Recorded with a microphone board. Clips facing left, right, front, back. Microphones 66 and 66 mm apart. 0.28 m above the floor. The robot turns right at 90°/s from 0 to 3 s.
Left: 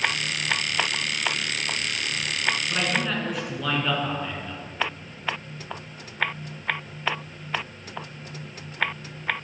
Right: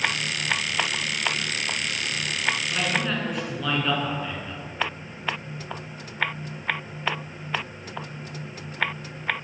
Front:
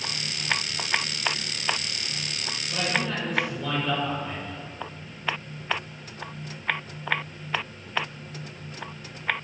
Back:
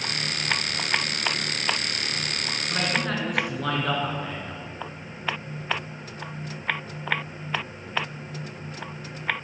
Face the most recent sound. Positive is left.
turn(degrees=180)